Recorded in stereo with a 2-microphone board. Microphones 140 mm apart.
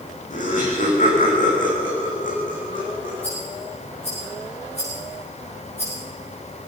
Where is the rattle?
50° left (ahead or behind), 9 m.